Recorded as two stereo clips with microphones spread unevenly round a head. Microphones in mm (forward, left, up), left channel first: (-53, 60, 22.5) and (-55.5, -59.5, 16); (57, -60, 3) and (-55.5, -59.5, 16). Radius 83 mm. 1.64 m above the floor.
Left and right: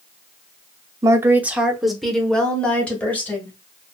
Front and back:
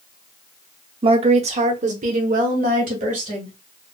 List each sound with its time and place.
1.0 s a woman speaking: 155° right, 0.6 m; by 3.6 s 165° left, 1.7 m